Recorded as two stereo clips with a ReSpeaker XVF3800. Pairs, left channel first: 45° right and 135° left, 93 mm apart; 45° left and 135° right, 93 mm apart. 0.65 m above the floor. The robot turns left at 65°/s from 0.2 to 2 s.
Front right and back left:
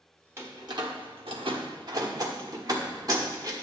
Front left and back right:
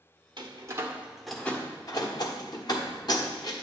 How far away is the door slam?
About 1.1 m.